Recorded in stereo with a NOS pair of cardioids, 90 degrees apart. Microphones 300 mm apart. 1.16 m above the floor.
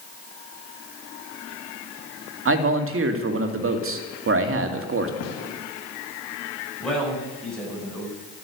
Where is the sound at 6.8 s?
Straight ahead, 9.5 m.